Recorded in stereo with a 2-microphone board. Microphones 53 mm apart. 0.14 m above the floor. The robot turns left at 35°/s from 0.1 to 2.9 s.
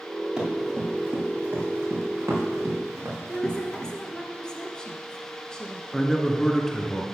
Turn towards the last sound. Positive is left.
turn(degrees=5)  # may be behind; listen again after turning